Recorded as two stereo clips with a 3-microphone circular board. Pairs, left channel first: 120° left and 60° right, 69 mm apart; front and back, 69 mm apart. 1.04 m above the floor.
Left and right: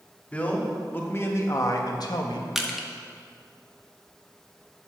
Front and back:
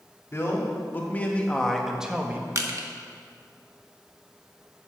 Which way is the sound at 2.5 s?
145° right.